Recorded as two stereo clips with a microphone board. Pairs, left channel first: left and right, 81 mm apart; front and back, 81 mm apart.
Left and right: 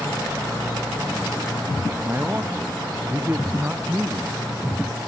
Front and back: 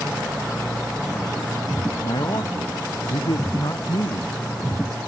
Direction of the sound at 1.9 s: 25° right.